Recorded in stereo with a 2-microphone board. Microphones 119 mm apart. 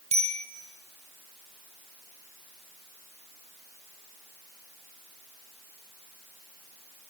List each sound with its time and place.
0.1 s a bicycle bell: 55° right (ahead or behind), 6 m